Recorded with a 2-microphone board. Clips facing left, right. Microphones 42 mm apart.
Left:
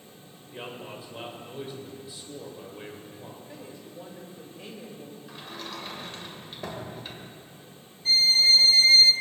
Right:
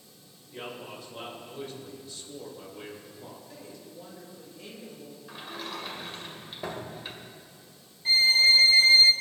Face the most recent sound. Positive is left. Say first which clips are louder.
# even
turn(degrees=-25)  # may be behind; listen again after turning